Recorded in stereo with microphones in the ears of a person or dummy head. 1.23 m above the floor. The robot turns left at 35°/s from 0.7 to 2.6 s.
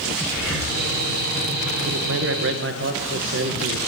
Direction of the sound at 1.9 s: 65° right (ahead or behind).